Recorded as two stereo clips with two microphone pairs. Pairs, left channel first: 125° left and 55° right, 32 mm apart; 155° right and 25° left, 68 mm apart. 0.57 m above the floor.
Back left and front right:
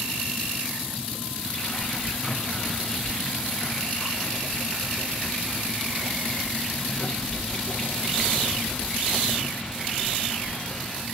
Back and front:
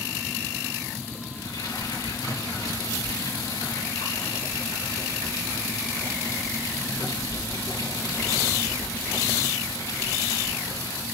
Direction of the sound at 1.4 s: 170° right.